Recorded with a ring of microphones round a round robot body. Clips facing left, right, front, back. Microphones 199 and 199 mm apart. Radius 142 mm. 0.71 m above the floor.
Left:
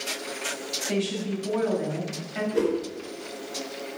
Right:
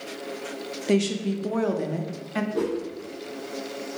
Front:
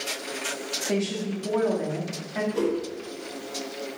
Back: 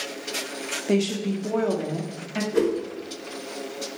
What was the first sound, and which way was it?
A woman speaking, 125° right.